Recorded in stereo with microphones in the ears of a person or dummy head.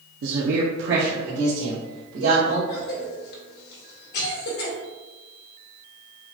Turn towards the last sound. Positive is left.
turn(degrees=65)  # may be behind; listen again after turning